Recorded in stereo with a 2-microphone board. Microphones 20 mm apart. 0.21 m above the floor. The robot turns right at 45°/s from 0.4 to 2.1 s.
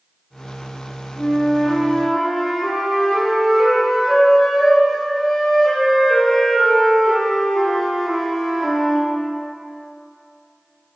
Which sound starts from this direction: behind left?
A flute, at 1.2 s.